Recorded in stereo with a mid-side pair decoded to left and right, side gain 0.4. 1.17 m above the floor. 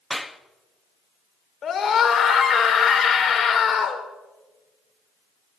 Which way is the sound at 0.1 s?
15° left.